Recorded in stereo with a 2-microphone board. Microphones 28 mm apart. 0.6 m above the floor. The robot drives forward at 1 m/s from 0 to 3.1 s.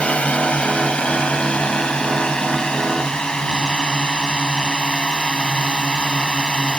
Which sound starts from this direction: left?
A drone, at 0.0 s.